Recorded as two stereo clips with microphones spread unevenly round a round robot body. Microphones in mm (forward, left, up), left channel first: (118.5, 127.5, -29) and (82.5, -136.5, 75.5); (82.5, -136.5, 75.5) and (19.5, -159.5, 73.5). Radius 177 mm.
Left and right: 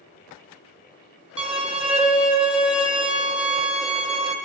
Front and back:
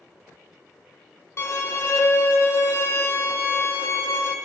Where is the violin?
15° right, 1.6 m.